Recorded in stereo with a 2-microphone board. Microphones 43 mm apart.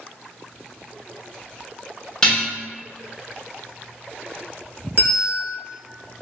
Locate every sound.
2.2 s dishes clattering: 20° left (ahead or behind), 1.0 m
5.0 s a bell: 50° right (ahead or behind), 1.1 m